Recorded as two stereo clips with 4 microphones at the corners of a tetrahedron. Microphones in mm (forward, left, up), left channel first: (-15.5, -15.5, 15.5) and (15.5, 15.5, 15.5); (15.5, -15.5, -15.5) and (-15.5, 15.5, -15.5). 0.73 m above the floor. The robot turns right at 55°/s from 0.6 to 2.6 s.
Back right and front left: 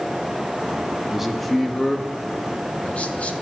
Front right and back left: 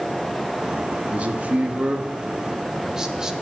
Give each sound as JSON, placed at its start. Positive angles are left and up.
{"t": 1.1, "sound": "a man speaking", "azimuth_deg": 120, "distance_m": 1.2}